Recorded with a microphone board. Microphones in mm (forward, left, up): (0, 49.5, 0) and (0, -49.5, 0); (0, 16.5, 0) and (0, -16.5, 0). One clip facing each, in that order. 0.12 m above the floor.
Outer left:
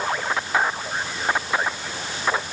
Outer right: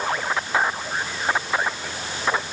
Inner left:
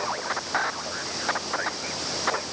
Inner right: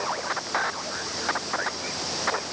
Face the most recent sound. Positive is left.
No sound to turn to.